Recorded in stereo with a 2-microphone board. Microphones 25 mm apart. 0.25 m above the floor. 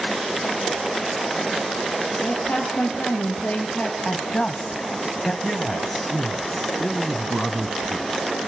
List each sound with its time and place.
2.2 s a woman speaking: 75° left (ahead or behind), 5.5 m; by 4.0 s 70° left (ahead or behind), 4.5 m
4.0 s a woman speaking: 40° left (ahead or behind), 1.3 m
5.4 s a man speaking: 10° left (ahead or behind), 1.5 m